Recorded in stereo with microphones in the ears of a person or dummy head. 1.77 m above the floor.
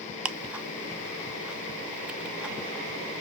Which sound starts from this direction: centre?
Ticking, at 0.2 s.